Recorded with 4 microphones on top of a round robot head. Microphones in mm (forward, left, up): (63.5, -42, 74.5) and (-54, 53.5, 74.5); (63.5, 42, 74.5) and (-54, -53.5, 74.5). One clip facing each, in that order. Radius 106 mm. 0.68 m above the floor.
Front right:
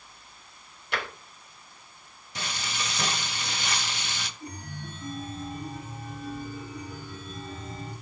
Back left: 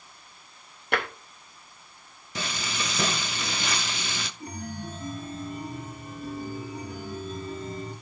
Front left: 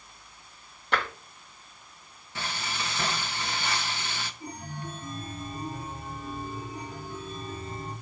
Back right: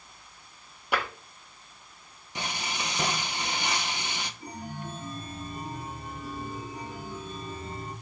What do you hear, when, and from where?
0.9 s tapping: 140° left, 0.8 m
2.4 s frying: 145° left, 0.5 m
4.4 s a chime: 150° left, 3.5 m